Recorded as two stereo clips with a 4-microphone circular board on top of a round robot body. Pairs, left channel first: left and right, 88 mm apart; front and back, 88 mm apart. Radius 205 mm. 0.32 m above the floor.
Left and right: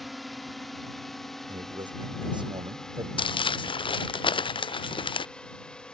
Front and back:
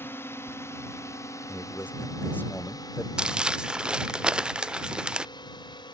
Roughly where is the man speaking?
Ahead right.